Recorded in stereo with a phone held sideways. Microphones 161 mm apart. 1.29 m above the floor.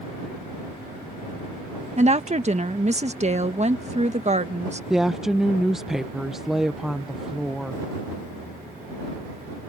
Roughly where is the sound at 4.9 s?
Centre.